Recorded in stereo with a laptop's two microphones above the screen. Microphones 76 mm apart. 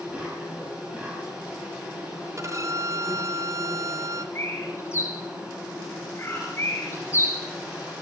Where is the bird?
35° left (ahead or behind), 2.5 m.